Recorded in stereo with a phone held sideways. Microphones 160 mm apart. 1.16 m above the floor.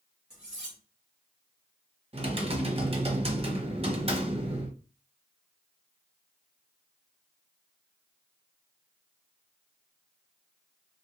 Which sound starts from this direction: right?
Typing on a keyboard, at 2.1 s.